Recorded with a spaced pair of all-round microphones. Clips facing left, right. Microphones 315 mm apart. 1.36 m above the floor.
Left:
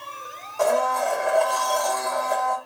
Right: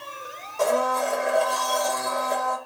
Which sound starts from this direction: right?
A blender, at 0.6 s.